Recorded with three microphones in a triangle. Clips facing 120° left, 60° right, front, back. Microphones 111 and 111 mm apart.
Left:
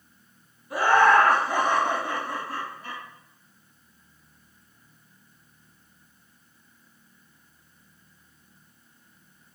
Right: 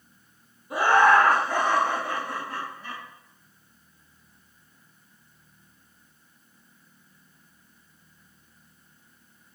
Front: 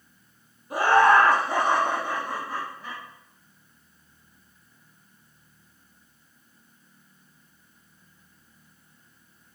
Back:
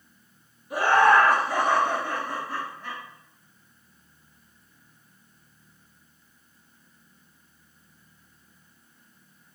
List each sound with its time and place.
0.7 s laughter: 10° right, 1.2 m; by 3.0 s 80° left, 1.9 m